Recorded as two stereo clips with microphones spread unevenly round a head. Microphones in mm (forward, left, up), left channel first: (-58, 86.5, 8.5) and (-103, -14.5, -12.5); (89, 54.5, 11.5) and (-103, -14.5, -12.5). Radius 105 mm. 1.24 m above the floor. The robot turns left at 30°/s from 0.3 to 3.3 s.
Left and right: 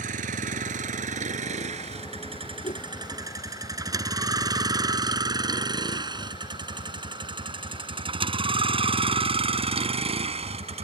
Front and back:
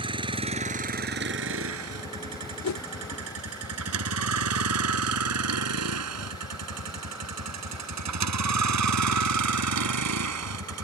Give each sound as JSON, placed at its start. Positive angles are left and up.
{"t": 0.0, "sound": "a vehicle", "azimuth_deg": -90}
{"t": 2.6, "sound": "a whoosh", "azimuth_deg": 20}